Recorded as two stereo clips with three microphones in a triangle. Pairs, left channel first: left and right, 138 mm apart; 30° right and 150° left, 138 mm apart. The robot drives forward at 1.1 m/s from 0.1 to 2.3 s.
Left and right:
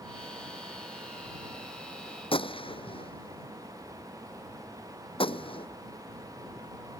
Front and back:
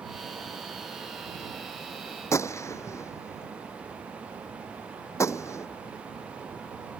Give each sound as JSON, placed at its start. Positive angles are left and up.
{"t": 2.3, "sound": "a gunshot", "azimuth_deg": 40}